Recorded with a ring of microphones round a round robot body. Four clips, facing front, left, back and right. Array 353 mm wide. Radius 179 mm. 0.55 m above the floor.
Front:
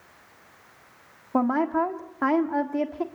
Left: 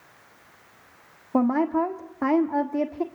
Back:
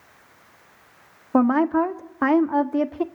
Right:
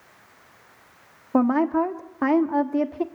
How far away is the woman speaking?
About 1.4 m.